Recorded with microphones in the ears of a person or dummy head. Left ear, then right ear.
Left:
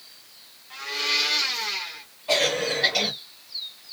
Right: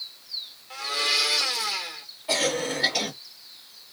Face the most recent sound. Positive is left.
turn(degrees=0)  # may be behind; listen again after turning